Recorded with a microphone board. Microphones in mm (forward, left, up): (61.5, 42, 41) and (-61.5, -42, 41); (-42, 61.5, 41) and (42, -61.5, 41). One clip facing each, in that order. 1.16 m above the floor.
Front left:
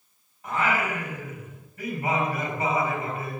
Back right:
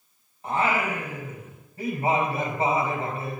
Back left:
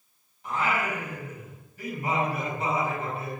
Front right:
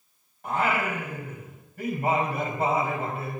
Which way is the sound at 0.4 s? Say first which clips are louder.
Back right 1 dB, front right 2 dB; 85° right.